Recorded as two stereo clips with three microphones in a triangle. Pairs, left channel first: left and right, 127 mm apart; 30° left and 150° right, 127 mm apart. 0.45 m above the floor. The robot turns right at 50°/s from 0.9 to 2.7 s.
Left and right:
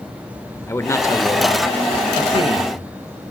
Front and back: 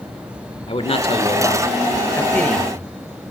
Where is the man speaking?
30° left, 1.0 m; by 2.9 s 120° left, 1.0 m.